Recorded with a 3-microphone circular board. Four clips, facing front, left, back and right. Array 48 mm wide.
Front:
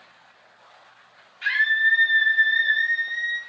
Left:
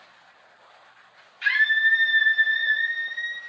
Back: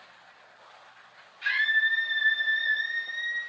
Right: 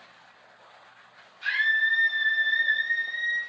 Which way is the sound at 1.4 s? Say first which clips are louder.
Left 4 dB, front 4 dB; 65° left.